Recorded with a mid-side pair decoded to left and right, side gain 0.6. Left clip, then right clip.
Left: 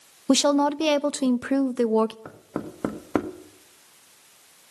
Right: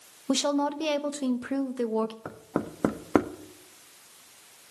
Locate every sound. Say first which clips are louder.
0.3 s a woman speaking: left 6 dB; 40° left, 0.6 m
2.2 s knocking: right 2 dB; 10° right, 1.0 m